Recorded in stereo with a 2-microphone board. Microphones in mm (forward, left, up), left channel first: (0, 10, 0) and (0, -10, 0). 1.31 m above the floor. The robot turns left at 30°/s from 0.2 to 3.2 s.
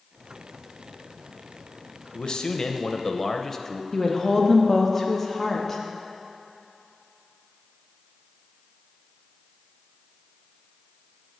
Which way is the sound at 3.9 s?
10° left (ahead or behind).